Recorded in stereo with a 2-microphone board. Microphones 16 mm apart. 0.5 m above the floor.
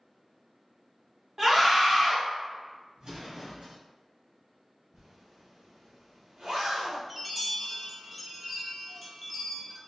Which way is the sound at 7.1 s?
15° right (ahead or behind).